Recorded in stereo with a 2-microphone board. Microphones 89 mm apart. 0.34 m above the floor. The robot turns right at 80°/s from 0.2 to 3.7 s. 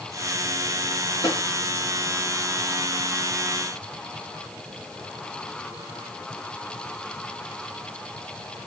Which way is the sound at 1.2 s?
45° left (ahead or behind).